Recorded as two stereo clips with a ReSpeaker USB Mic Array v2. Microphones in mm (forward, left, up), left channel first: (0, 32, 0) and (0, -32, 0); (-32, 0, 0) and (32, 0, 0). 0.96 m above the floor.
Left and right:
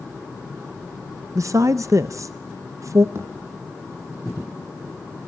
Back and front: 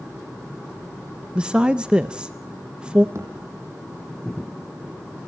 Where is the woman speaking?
70° right, 0.5 m.